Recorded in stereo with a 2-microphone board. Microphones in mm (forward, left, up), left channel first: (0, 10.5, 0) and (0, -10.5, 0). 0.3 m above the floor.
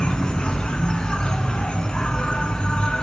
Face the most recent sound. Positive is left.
turn(degrees=45)  # may be behind; listen again after turning